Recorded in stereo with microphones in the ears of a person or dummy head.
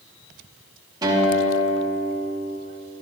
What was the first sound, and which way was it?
A guitar, 25° right (ahead or behind).